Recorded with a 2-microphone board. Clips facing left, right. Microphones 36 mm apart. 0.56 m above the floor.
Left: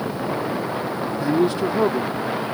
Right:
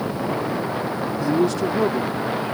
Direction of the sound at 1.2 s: 25° left (ahead or behind).